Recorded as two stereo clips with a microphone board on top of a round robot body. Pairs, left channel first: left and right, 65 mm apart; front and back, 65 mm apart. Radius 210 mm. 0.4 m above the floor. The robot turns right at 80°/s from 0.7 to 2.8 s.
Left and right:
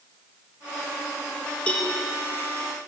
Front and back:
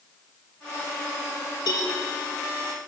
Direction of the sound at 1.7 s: 15° left.